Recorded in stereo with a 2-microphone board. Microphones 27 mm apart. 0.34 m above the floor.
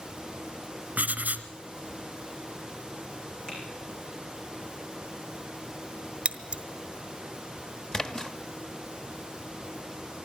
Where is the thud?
No thud in this recording.